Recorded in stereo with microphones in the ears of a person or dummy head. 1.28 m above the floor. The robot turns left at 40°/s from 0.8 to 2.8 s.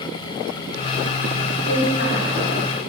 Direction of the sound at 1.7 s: 70° left (ahead or behind).